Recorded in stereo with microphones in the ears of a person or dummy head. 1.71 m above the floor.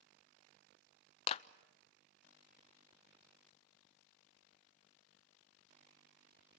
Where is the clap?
30° left (ahead or behind), 0.5 m.